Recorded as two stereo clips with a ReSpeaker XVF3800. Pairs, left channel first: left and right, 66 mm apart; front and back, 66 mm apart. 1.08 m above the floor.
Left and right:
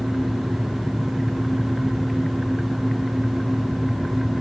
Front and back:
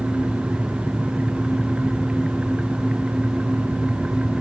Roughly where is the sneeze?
I don't hear a sneeze.